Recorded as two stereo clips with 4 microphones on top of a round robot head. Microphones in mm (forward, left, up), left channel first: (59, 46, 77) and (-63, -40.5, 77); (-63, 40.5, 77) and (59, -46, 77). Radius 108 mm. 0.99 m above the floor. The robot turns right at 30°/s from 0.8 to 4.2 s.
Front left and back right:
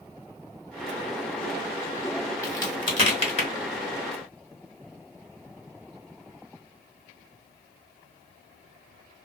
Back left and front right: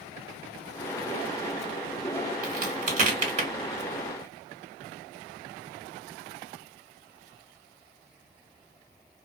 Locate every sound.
2.4 s a crack: 30° right, 1.6 m; by 3.5 s 5° left, 1.6 m